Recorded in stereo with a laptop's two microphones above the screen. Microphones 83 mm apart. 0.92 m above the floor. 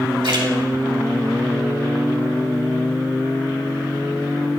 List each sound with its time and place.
0.2 s a splash: 85° right, 2.5 m